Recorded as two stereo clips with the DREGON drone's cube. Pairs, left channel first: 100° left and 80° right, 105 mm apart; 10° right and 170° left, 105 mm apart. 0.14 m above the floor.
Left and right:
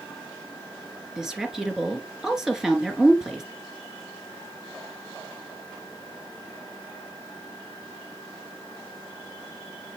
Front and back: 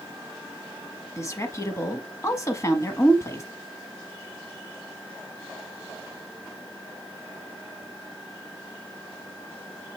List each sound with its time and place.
1.2 s a woman speaking: straight ahead, 1.2 m